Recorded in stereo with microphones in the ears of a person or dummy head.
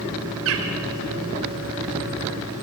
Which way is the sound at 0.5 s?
75° right (ahead or behind).